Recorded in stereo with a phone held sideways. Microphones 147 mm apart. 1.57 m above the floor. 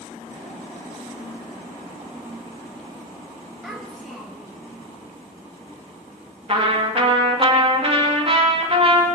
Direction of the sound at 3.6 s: Centre (ahead or behind).